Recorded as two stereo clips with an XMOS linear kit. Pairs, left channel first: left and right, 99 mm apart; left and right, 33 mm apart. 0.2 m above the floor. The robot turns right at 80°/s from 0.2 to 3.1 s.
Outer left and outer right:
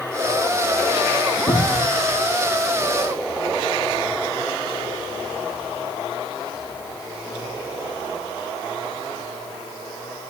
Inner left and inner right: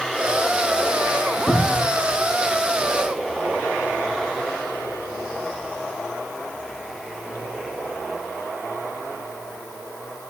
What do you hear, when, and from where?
1.5 s a cupboard door: 85° left, 6.5 m; by 1.9 s 115° left, 6.5 m